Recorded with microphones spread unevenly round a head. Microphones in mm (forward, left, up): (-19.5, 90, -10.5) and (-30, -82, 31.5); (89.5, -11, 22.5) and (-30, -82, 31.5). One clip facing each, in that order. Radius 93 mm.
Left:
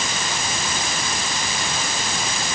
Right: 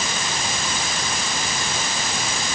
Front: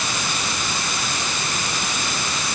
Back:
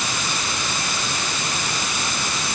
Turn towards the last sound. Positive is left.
No sound to turn to.